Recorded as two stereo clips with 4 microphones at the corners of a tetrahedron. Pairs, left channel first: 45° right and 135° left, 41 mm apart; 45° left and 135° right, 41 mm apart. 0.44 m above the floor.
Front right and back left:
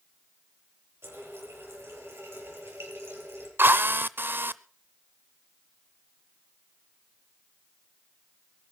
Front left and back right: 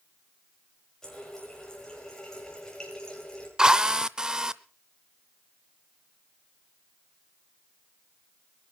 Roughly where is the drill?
Behind left.